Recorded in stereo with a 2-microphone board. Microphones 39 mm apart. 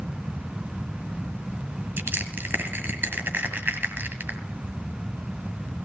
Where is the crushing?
65° right (ahead or behind), 1.7 m.